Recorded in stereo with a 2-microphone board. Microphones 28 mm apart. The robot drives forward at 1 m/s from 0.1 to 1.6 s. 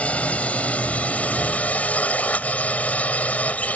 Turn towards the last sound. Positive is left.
turn(degrees=55)  # may be behind; listen again after turning